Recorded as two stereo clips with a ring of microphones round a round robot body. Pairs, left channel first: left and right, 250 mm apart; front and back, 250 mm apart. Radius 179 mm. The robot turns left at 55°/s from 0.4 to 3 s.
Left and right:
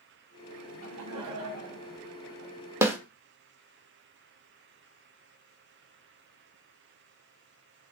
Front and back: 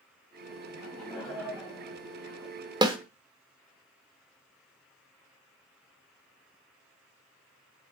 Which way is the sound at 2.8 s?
150° right.